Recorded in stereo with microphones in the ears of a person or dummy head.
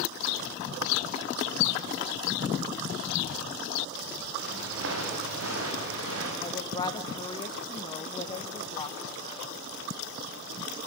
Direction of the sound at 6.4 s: 25° left (ahead or behind).